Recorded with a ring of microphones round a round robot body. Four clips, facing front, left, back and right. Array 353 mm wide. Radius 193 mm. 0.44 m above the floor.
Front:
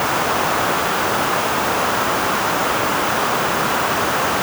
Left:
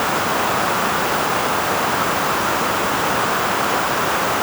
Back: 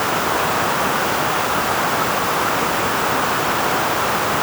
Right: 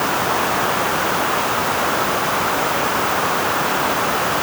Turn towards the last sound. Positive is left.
No sound to turn to.